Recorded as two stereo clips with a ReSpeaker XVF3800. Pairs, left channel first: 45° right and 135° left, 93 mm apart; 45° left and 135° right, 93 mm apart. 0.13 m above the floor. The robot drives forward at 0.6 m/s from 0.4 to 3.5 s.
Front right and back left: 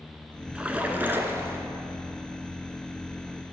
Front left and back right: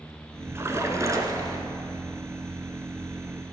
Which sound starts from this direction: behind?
A splash, at 0.6 s.